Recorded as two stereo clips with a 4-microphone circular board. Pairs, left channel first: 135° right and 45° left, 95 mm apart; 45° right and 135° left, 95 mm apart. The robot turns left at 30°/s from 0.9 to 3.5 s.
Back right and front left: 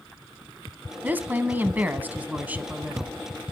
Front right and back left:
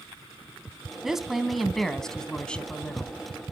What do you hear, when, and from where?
1.0 s a woman speaking: 60° left, 1.0 m; by 3.1 s 5° right, 1.0 m